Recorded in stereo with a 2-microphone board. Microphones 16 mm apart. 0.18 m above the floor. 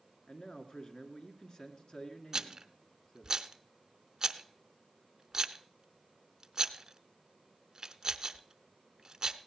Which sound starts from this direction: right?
A rattle, at 2.3 s.